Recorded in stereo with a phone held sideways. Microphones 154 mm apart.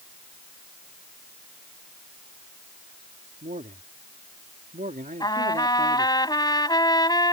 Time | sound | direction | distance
3.4 | a man speaking | 70° right (ahead or behind) | ?
5.2 | a trumpet | 25° left (ahead or behind) | ?